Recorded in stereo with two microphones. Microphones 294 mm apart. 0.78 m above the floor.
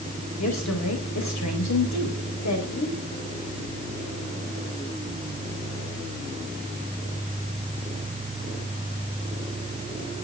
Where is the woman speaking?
65° left (ahead or behind), 4 m.